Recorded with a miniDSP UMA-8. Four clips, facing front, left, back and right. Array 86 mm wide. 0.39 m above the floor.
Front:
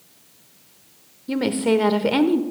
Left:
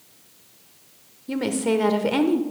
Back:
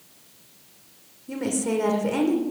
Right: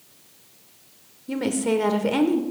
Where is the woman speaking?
10° left, 0.9 m.